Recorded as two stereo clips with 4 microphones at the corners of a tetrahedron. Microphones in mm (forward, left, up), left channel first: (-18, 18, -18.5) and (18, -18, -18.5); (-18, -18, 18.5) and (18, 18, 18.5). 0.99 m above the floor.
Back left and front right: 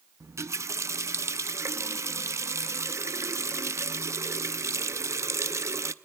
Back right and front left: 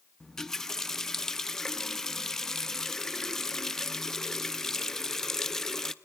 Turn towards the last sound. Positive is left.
turn(degrees=-55)